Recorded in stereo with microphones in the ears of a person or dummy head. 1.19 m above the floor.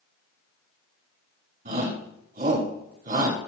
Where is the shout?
45° right (ahead or behind), 4 m.